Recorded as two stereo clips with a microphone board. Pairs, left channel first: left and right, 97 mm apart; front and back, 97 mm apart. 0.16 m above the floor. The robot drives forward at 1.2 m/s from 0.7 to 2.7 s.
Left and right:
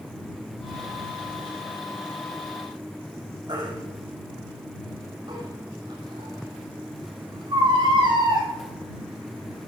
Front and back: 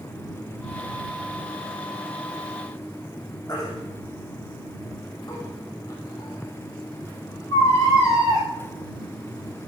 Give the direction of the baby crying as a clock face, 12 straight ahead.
2 o'clock.